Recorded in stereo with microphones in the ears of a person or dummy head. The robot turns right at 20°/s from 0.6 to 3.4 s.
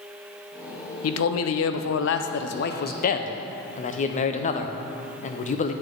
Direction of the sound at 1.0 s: 90° left.